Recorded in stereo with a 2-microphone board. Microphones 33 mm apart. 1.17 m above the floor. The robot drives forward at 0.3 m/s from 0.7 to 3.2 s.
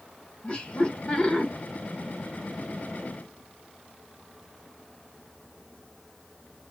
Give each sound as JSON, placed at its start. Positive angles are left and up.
{"t": 0.4, "sound": "laughter", "side_deg": 35, "distance_m": 1.2}